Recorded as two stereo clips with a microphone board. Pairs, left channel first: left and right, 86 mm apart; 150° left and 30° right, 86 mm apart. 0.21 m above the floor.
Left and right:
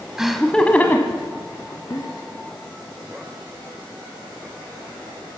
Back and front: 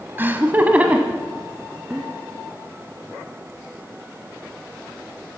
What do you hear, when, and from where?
0.2 s laughter: 15° right, 1.0 m; by 2.1 s 50° left, 1.9 m